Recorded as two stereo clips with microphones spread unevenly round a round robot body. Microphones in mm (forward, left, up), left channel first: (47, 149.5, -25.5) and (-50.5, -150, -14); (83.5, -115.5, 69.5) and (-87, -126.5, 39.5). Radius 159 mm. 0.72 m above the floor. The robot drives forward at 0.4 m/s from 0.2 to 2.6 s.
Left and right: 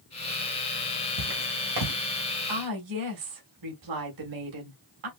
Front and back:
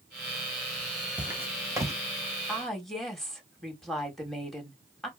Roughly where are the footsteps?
Right.